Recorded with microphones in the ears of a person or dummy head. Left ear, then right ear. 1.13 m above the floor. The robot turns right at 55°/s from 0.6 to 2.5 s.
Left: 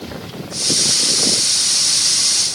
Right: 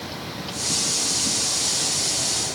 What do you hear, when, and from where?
Only background noise.